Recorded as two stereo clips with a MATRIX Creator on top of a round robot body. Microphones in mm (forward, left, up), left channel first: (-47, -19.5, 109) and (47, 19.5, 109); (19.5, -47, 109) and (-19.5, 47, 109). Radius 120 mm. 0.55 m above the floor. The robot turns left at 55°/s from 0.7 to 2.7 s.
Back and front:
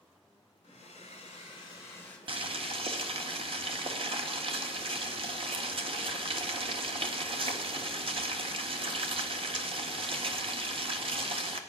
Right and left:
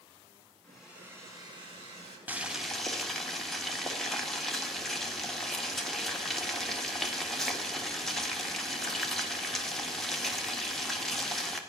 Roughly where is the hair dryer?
Behind right.